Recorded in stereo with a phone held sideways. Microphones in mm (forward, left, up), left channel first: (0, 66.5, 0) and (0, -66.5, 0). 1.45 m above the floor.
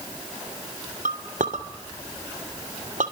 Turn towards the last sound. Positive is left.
turn(degrees=-75)  # may be behind; listen again after turning